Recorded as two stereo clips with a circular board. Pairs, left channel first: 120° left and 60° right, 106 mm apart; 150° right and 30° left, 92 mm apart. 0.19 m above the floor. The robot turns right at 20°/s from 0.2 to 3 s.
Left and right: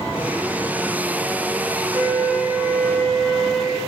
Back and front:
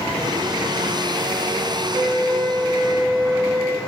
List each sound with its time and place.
1.9 s a flute: 5° left, 1.8 m; by 3.8 s 25° left, 1.8 m